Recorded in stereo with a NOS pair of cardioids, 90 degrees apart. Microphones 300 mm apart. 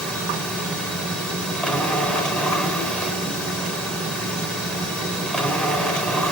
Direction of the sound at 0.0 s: 5° left.